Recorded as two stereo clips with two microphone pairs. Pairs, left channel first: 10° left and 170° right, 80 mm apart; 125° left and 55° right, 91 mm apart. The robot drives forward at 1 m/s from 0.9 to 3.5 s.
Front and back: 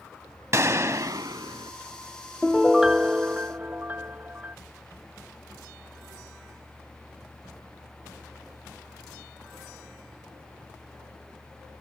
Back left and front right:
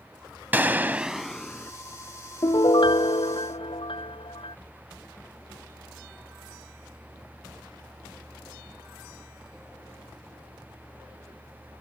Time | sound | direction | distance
0.5 | a gunshot | 125° right | ?
2.4 | a piano | 90° left | ?